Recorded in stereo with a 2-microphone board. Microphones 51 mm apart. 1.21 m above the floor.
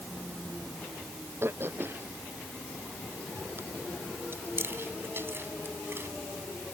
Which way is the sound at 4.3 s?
45° right (ahead or behind).